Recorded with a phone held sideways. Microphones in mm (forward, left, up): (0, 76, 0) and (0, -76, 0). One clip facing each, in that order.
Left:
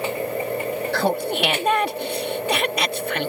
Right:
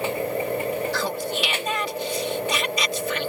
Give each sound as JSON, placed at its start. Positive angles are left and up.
{"t": 0.9, "sound": "laughter", "side_deg": 60}